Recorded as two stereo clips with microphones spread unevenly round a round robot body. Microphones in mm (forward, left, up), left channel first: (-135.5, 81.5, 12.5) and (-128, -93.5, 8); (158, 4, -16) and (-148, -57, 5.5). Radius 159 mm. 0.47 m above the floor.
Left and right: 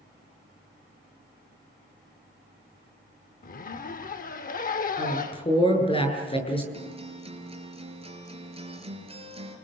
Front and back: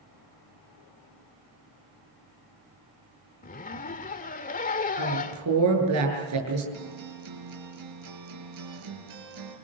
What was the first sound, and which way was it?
A zipper, 65° left.